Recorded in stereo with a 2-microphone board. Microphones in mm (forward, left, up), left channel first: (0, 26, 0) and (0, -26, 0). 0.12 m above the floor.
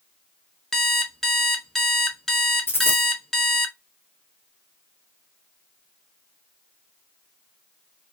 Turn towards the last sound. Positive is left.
turn(degrees=45)  # may be behind; listen again after turning